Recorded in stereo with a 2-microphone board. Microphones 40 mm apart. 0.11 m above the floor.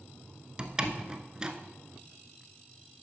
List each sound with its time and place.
0.6 s a door slam: 20° right (ahead or behind), 0.7 m